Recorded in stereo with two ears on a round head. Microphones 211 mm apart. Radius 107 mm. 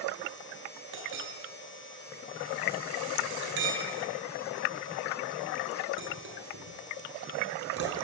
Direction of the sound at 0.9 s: 50° right (ahead or behind).